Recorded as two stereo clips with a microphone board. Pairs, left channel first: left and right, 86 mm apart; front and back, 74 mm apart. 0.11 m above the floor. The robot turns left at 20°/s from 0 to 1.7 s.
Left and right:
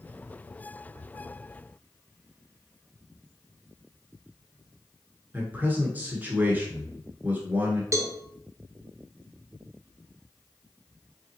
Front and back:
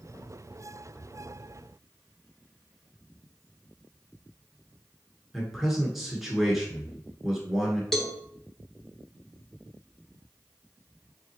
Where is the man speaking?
100° right, 1.1 m.